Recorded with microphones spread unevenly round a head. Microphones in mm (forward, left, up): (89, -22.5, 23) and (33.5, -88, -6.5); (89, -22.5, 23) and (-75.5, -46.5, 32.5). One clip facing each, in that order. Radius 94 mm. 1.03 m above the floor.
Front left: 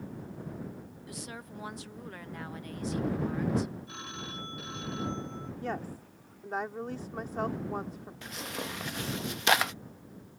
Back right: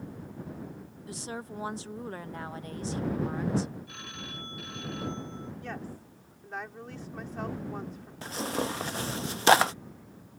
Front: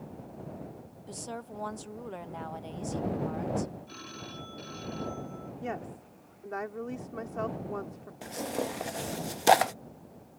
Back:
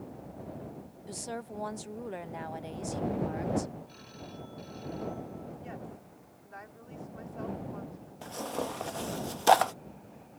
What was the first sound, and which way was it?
A woman speaking, 95° right.